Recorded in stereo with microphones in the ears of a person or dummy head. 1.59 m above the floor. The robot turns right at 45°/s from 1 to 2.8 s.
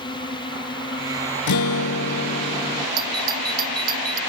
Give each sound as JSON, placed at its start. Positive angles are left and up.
{"t": 0.0, "sound": "a drone", "azimuth_deg": 155}
{"t": 1.5, "sound": "a guitar", "azimuth_deg": 100}
{"t": 3.0, "sound": "a doorbell", "side_deg": -25}